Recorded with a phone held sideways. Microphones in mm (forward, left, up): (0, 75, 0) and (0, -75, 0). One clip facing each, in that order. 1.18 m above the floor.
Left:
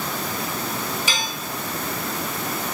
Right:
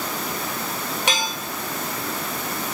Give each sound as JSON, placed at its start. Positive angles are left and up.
{"t": 1.1, "sound": "dishes clattering", "side_deg": -75, "distance_m": 2.5}